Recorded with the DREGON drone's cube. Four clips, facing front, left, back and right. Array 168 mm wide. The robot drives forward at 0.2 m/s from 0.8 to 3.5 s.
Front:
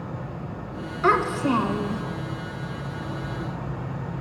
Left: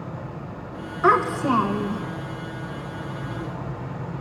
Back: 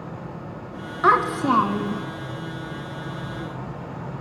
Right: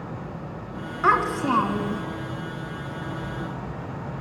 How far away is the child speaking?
About 0.8 m.